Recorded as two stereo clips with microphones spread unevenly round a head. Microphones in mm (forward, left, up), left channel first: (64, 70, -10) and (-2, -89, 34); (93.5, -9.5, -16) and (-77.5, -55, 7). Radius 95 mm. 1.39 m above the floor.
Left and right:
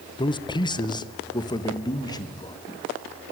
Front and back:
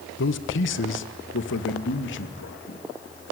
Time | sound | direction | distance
0.2 | a man speaking | 5° left | 1.2 m